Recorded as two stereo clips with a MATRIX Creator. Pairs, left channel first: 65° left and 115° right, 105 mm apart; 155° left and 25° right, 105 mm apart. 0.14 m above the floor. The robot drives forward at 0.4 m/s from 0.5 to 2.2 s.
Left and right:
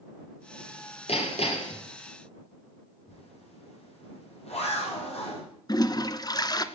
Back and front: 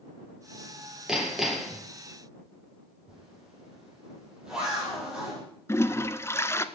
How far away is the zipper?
About 7 m.